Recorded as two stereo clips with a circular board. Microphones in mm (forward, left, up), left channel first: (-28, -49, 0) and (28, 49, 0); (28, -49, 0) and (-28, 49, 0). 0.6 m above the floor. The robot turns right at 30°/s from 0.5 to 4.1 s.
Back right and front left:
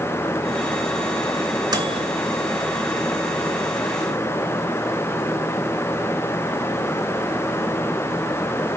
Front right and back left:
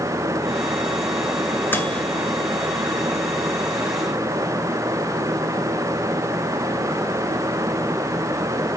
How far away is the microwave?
About 2 m.